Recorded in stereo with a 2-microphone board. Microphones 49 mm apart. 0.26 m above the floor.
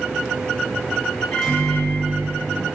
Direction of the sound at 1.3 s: 10° left (ahead or behind).